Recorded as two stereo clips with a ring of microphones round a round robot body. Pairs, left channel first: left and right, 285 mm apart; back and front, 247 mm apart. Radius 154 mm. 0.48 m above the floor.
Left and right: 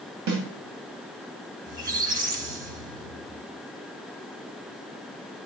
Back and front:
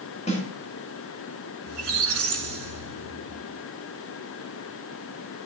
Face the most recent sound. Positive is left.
turn(degrees=-30)